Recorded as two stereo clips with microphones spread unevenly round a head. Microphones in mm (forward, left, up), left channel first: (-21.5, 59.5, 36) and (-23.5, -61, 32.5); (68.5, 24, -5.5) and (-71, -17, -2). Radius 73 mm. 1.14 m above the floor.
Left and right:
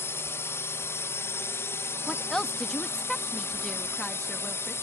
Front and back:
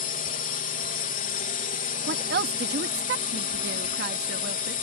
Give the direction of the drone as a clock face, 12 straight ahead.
11 o'clock.